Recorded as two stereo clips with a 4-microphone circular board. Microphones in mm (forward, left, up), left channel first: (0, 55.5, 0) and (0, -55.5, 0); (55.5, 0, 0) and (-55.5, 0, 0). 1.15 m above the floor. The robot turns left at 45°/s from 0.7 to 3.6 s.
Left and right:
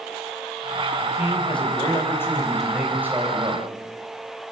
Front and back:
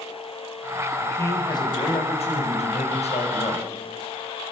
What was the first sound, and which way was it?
A man speaking, 75° left.